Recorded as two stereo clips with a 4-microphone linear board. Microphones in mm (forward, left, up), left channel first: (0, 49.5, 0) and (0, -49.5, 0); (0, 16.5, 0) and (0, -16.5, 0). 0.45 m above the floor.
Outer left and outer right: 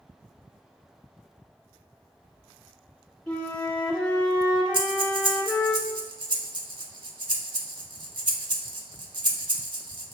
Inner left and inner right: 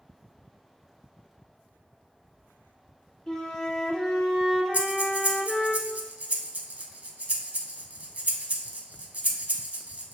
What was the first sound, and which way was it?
A flute, 10° left (ahead or behind).